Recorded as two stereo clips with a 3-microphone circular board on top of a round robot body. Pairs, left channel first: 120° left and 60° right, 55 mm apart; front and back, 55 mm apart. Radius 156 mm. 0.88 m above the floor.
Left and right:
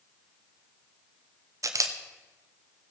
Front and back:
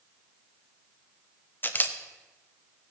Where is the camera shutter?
55° right, 1.1 m.